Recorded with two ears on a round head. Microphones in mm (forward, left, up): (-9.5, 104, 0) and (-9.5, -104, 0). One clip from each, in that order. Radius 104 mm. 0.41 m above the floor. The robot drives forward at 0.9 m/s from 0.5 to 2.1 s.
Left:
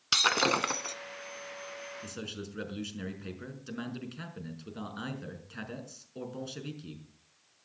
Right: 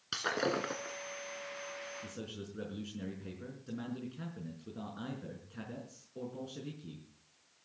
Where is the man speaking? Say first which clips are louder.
Left 4 dB; 60° left (ahead or behind), 5 m.